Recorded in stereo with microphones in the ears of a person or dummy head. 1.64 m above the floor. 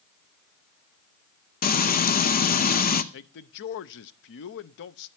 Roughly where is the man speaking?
Left.